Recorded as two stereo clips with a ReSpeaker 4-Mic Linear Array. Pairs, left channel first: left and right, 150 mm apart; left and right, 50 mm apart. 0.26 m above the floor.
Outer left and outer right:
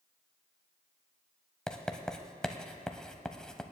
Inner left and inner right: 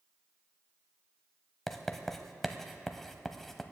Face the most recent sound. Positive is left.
turn(degrees=5)  # may be behind; listen again after turning